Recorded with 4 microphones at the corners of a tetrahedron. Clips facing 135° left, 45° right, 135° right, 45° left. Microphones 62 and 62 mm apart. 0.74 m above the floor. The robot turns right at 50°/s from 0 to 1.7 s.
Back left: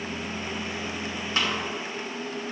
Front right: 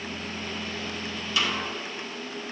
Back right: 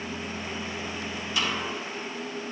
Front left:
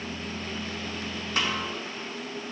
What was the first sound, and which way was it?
A snare drum, 85° left.